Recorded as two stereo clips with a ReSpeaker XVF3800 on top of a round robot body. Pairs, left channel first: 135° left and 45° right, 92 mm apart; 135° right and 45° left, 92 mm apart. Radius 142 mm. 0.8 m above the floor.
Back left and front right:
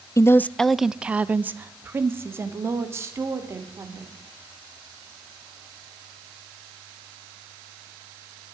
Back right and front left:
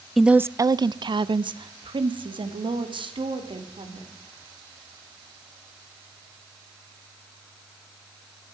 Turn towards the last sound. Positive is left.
turn(degrees=15)